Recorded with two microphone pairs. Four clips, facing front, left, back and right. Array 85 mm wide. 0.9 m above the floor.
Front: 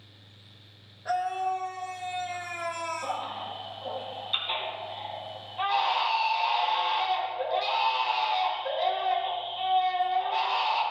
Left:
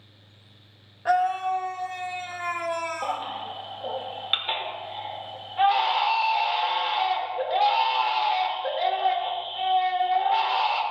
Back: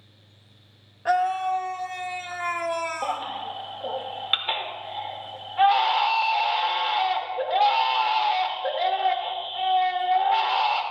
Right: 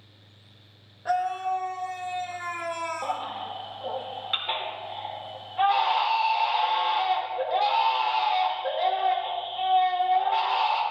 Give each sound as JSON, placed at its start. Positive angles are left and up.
{"t": 1.1, "sound": "a scream", "azimuth_deg": 145, "distance_m": 0.8}
{"t": 3.0, "sound": "a baby crying", "azimuth_deg": -175, "distance_m": 1.9}